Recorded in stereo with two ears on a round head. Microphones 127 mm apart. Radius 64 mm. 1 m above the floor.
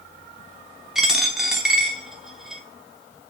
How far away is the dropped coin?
About 0.6 m.